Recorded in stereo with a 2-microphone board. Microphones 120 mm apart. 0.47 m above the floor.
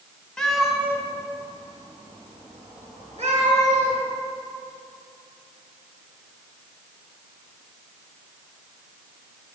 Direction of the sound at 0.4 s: 5° left (ahead or behind).